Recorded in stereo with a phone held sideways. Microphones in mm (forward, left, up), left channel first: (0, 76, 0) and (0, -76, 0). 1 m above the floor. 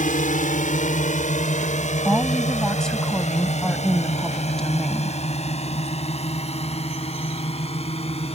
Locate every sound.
0.0 s a drone: 60° left (ahead or behind); by 8.4 s 45° left (ahead or behind)
2.0 s a woman speaking: 5° left (ahead or behind)